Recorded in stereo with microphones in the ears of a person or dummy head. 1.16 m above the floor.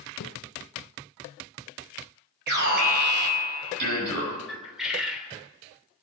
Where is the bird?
5° right (ahead or behind), 3 m.